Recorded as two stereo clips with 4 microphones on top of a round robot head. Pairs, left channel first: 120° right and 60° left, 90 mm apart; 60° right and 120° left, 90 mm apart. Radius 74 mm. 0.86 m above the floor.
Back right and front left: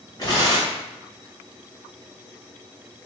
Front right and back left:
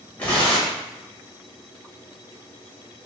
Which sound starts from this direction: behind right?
Tearing paper, at 0.2 s.